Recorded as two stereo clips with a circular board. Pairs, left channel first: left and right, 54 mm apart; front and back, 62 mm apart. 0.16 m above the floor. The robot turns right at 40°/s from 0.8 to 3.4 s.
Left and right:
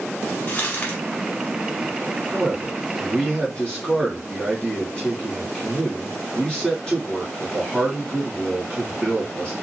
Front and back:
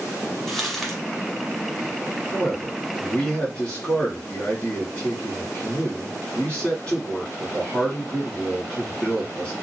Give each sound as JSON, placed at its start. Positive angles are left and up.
{"t": 0.5, "sound": "crumpling", "azimuth_deg": 80, "distance_m": 1.3}
{"t": 2.3, "sound": "a man speaking", "azimuth_deg": 5, "distance_m": 1.5}